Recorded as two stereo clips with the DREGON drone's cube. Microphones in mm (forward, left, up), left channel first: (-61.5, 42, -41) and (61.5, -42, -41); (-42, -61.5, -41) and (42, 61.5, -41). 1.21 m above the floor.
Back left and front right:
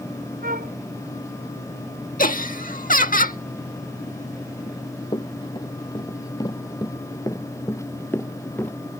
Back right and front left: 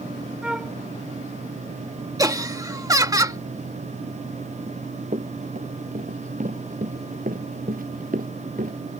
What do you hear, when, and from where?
0.4 s a flute: 30° right
2.2 s laughter: 120° left
4.7 s running footsteps: 90° left; by 8.8 s 70° left